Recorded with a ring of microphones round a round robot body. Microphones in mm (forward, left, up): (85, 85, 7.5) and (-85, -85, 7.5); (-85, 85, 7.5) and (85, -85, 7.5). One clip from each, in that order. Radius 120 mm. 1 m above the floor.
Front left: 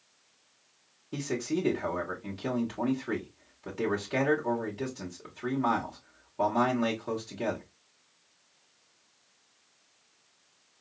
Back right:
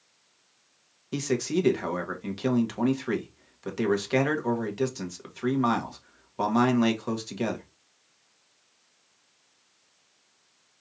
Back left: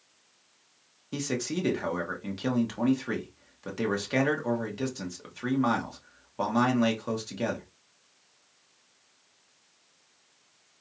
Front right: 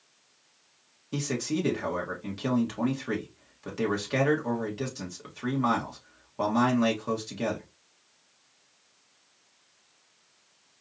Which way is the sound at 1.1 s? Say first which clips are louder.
Back right 5 dB, front right 1 dB; 145° right.